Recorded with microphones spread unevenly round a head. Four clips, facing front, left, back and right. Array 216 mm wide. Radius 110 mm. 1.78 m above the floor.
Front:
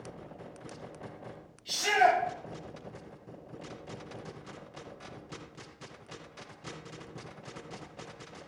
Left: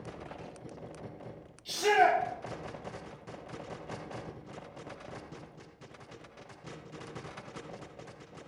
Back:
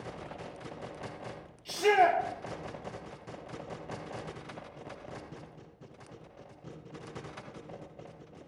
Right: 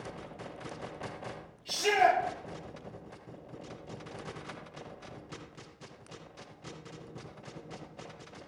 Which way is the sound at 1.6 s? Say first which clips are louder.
Left 1 dB, back 1 dB; 145° left.